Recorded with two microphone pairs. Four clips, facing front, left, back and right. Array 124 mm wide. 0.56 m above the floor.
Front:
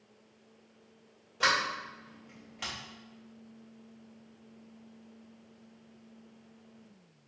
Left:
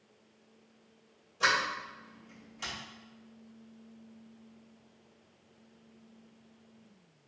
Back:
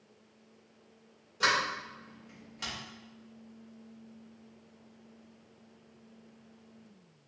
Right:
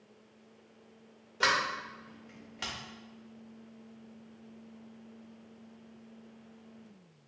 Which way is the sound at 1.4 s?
75° right.